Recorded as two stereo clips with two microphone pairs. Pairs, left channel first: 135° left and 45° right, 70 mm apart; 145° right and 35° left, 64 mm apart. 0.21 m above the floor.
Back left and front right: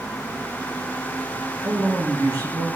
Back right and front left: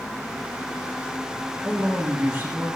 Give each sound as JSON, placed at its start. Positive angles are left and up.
{"t": 1.6, "sound": "a man speaking", "azimuth_deg": -25, "distance_m": 3.5}